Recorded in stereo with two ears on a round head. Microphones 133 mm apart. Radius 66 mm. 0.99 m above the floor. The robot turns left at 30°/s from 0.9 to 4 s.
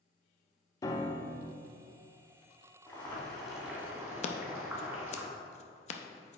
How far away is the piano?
About 0.9 m.